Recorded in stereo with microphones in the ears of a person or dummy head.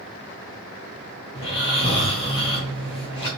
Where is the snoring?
25° left (ahead or behind), 1.5 m.